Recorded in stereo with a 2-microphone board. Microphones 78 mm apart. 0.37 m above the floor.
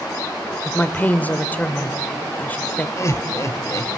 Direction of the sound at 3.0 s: 40° left (ahead or behind).